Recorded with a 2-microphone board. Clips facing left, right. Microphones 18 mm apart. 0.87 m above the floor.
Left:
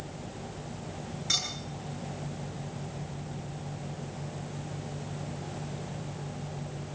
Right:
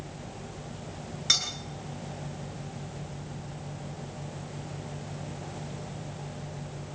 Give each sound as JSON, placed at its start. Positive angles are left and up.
{"t": 1.3, "sound": "cutlery clinking", "side_deg": -50, "distance_m": 9.0}